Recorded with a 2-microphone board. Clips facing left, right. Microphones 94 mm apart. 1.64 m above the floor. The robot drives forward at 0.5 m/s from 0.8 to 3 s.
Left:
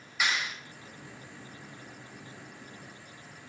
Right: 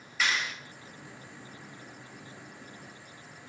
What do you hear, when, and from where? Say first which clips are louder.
0.2 s a clap: even; 15° left (ahead or behind), 2.5 m